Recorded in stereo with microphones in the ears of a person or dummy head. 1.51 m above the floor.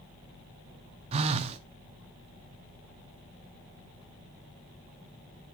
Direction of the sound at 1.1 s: 30° right (ahead or behind).